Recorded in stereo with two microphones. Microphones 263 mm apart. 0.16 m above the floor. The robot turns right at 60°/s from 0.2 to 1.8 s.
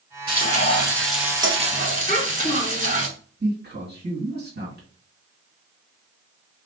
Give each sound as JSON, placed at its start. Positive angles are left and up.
{"t": 0.3, "sound": "frying", "azimuth_deg": 130, "distance_m": 1.5}
{"t": 2.1, "sound": "a child speaking", "side_deg": 25, "distance_m": 2.0}
{"t": 3.4, "sound": "a man speaking", "side_deg": -40, "distance_m": 2.0}